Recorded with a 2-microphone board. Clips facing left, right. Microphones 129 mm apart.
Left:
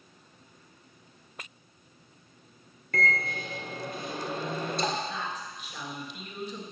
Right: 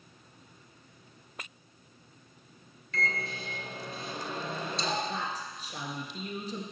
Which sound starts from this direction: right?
A woman speaking, at 5.1 s.